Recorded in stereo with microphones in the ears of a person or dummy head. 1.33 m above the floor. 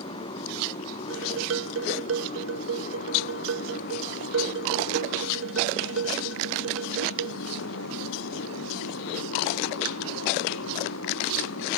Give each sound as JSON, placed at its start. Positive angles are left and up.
{"t": 0.0, "sound": "a motorcycle", "side_deg": 30}
{"t": 1.1, "sound": "dishes clattering", "side_deg": -85}